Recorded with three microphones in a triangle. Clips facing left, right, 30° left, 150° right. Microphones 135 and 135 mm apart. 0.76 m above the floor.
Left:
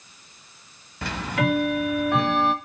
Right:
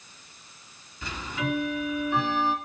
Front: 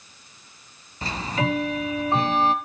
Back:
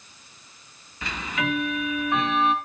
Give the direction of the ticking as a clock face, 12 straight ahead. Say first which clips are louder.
Left 7 dB, front 3 dB; 9 o'clock.